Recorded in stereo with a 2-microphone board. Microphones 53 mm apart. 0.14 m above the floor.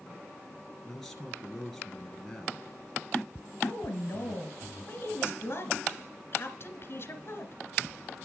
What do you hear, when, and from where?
0.8 s a man speaking: 5° left (ahead or behind), 2 m
3.6 s a woman speaking: 45° left (ahead or behind), 1.8 m